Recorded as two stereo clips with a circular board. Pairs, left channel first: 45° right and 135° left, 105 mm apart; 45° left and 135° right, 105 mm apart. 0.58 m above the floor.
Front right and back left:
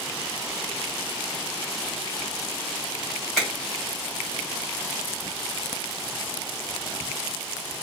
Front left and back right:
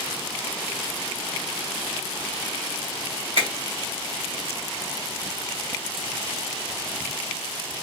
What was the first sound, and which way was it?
A finger snap, 130° right.